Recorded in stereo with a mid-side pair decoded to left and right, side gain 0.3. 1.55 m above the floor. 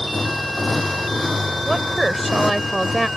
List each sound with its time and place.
0.0 s a motorcycle: 25° left; by 3.2 s 30° left
1.6 s a woman speaking: 20° right